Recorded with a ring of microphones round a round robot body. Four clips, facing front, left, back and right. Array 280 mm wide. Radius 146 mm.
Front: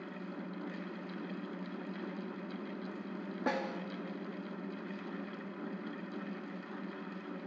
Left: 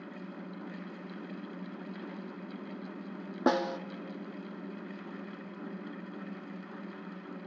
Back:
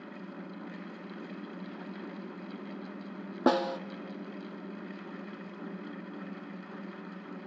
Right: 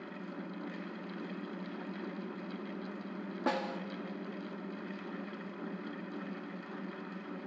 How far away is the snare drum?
About 0.7 m.